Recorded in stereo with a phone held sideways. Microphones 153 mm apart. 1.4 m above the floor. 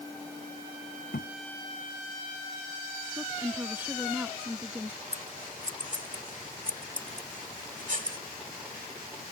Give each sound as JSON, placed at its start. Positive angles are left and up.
{"t": 1.1, "sound": "a thud", "side_deg": 85}
{"t": 3.2, "sound": "a woman speaking", "side_deg": -10}
{"t": 5.1, "sound": "scissors", "side_deg": -60}